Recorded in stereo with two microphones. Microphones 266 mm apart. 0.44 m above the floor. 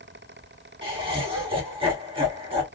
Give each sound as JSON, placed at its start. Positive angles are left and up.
{"t": 0.8, "sound": "laughter", "side_deg": -20, "distance_m": 1.4}